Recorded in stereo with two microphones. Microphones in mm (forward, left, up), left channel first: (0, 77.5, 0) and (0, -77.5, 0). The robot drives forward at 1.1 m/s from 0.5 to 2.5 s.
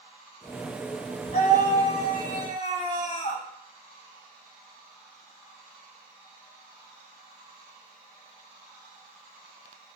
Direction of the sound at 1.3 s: 65° left (ahead or behind).